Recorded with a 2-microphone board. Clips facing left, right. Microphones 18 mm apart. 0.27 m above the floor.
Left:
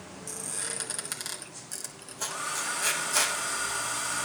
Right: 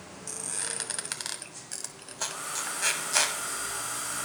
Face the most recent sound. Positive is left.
turn(degrees=15)  # may be behind; listen again after turning